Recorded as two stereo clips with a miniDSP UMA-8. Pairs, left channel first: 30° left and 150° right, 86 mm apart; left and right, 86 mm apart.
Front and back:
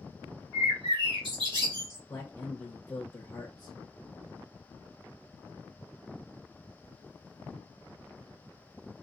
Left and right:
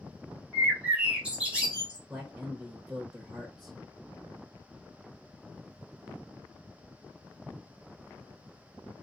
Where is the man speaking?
20° right, 0.8 m.